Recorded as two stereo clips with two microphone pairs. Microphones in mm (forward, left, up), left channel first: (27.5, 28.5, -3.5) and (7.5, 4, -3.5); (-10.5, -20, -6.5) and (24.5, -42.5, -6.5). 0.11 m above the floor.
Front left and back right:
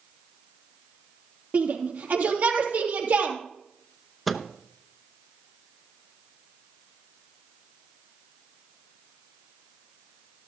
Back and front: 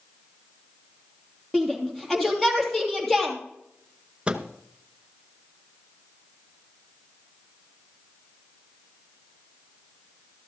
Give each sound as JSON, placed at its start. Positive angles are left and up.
{"t": 1.5, "sound": "a shout", "azimuth_deg": -125, "distance_m": 3.0}
{"t": 4.3, "sound": "a microwave", "azimuth_deg": -35, "distance_m": 0.9}